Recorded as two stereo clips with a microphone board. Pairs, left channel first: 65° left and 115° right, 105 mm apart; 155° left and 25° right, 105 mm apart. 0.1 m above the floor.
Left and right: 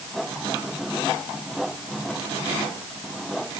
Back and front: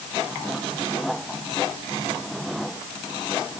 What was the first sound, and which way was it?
Only background noise.